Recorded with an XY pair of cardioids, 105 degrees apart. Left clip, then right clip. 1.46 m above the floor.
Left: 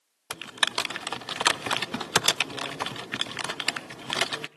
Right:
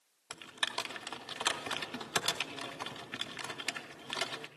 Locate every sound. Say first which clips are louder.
0.3 s typing on a keyboard: left 9 dB; 65° left, 0.6 m